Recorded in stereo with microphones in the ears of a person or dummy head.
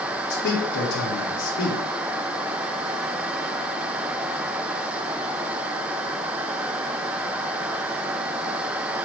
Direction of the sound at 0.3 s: 65° left (ahead or behind).